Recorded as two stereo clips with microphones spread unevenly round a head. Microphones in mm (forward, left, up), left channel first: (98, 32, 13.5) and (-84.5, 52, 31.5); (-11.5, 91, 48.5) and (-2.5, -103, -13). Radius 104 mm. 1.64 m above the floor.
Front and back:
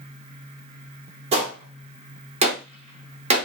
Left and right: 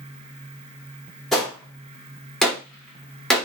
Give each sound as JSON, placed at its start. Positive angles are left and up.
{"t": 1.3, "sound": "a gunshot", "azimuth_deg": 155, "distance_m": 0.7}